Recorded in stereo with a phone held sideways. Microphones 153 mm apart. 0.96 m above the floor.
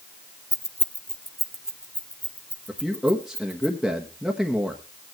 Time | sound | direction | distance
0.5 | keys jangling | 25° left (ahead or behind) | 0.6 m
2.7 | a man speaking | 5° right (ahead or behind) | 1.2 m